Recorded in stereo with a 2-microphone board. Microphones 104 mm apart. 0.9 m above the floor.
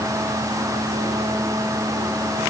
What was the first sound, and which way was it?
Only background noise.